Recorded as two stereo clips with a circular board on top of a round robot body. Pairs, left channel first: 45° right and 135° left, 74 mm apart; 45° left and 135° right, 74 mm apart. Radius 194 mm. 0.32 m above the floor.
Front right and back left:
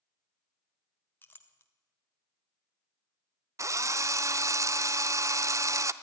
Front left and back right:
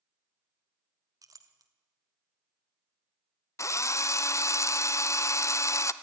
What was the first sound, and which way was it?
A clink, 105° right.